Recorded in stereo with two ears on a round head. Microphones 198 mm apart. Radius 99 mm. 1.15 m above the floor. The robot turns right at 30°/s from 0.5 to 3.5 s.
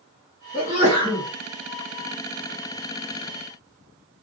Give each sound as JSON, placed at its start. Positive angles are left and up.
{"t": 0.5, "sound": "a sneeze", "side_deg": 35, "distance_m": 1.7}